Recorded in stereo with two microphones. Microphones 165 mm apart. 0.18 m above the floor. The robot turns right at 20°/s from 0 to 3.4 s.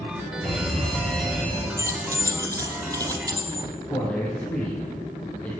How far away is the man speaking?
About 2.5 m.